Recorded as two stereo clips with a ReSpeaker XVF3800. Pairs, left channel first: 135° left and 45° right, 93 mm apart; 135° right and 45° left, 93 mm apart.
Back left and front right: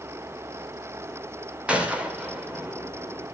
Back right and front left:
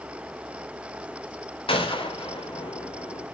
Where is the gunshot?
120° right, 2.5 m.